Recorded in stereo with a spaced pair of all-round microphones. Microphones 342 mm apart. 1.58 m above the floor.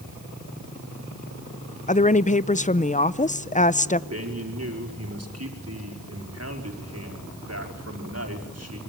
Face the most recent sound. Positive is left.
turn(degrees=-45)  # may be behind; listen again after turning